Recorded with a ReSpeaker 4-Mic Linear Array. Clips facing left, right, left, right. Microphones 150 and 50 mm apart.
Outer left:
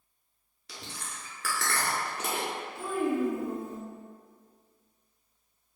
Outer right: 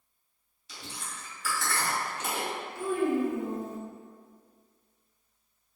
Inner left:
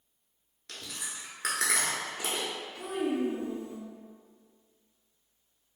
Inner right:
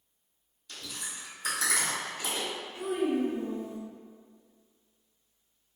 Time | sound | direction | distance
0.7 | chewing | 85° left | 1.0 m
2.8 | a child speaking | 20° right (ahead or behind) | 1.0 m